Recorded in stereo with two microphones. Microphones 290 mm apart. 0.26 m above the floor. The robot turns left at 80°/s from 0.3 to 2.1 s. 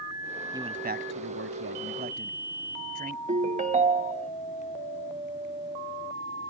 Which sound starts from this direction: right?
A ringtone, at 3.3 s.